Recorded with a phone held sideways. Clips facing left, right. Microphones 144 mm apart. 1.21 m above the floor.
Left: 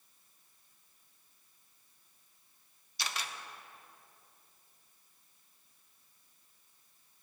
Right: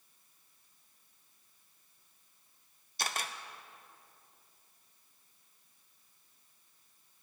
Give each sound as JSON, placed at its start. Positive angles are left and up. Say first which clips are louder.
{"t": 3.0, "sound": "a camera shutter", "louder": "right 3 dB", "side_deg": -50, "distance_m": 0.6}